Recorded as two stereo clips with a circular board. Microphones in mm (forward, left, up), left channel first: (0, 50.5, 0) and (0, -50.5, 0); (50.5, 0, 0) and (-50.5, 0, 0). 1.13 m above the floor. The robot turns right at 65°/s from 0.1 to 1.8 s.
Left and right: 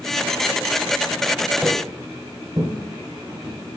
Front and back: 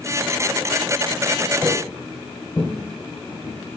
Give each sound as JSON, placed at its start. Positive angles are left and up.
{"t": 1.6, "sound": "footsteps", "azimuth_deg": -155, "distance_m": 1.2}